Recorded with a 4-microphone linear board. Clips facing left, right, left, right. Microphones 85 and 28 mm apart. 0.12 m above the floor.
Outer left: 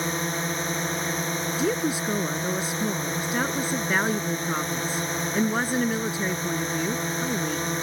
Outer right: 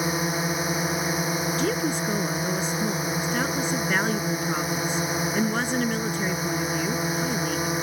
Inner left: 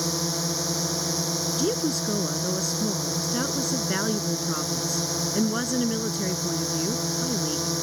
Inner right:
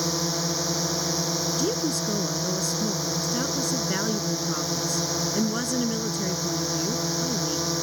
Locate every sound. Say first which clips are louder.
0.0 s a drone: outer right 2 dB, inner right 1 dB; 10° right (ahead or behind)
1.6 s a woman speaking: outer left 3 dB, even; 10° left (ahead or behind)